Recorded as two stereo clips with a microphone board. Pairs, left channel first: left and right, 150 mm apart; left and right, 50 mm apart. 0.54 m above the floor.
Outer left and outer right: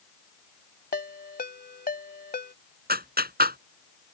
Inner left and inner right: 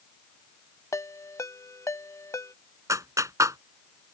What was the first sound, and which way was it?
A ringtone, 75° left (ahead or behind).